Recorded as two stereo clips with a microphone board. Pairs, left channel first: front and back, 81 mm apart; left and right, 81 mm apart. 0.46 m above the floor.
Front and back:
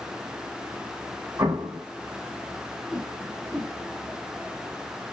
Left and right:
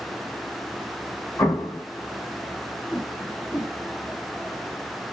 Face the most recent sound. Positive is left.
turn(degrees=90)